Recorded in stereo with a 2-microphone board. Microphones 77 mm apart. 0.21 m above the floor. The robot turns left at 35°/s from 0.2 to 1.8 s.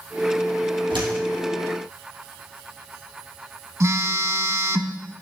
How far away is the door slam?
About 4 m.